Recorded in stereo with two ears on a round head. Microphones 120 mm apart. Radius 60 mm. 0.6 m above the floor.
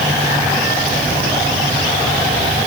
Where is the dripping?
No dripping in this recording.